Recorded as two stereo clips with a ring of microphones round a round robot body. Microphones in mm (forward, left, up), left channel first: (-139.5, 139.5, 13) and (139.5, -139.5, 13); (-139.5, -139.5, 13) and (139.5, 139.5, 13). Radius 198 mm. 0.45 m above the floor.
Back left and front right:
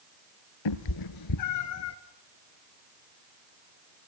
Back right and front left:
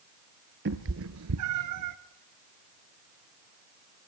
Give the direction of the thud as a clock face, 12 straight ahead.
I don't hear a thud.